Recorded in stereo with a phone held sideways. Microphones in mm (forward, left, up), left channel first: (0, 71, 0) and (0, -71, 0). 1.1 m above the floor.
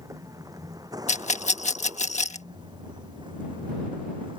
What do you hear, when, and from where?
0.0 s a vehicle: 25° right (ahead or behind); by 4.4 s 35° right (ahead or behind)
1.1 s a rattle: 55° left (ahead or behind)